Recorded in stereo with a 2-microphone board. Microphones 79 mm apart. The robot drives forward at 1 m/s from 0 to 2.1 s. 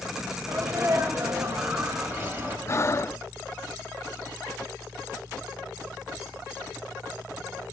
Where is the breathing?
35° left (ahead or behind), 0.6 m.